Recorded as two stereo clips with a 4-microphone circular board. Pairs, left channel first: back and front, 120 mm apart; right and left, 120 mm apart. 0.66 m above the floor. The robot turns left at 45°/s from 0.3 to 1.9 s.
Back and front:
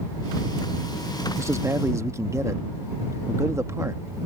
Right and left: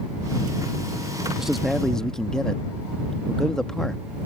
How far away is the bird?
I don't hear a bird.